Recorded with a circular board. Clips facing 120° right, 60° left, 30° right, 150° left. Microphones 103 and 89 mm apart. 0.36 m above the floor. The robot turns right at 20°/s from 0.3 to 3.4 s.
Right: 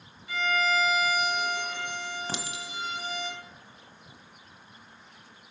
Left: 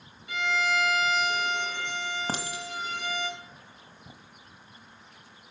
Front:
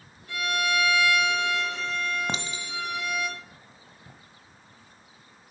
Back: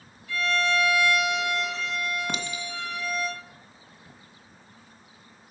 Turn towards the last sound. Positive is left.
turn(degrees=45)